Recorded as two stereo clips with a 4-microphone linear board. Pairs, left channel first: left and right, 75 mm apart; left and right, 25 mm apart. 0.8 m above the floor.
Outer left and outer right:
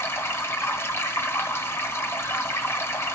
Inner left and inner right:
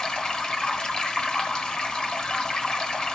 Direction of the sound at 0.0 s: 35° left (ahead or behind).